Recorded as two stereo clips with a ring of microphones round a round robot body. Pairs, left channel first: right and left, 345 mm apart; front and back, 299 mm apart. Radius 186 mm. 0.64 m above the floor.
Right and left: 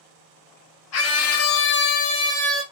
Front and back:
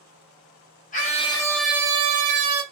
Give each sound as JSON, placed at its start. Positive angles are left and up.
{"t": 0.9, "sound": "a scream", "azimuth_deg": -60, "distance_m": 1.0}